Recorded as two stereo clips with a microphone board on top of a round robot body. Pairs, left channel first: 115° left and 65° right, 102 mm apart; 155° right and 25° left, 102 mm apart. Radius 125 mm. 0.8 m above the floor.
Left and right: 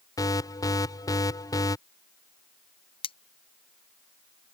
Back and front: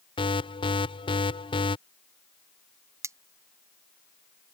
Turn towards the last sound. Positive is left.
turn(degrees=85)